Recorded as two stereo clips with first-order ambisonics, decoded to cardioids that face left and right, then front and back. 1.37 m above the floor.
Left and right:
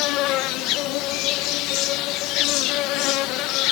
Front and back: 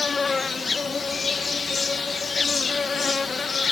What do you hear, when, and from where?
0.0 s an insect: 70° left